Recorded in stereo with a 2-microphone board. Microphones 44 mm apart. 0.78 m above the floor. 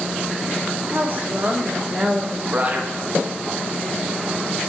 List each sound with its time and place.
0.9 s a woman speaking: 50° right (ahead or behind), 1.5 m; by 2.4 s 20° right (ahead or behind), 1.9 m
2.5 s a man speaking: 35° right (ahead or behind), 1.1 m